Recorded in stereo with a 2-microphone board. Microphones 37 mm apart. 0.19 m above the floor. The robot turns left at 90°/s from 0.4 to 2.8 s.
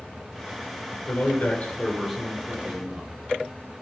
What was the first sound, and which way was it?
A man speaking, 85° left.